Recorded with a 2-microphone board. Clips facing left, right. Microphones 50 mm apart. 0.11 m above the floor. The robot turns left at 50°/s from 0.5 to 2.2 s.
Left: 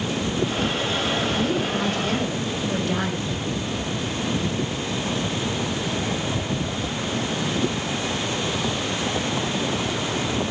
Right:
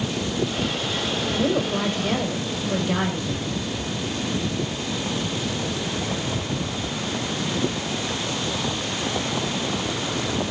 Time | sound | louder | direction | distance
1.3 | a woman speaking | right 1 dB | 125° right | 5.5 m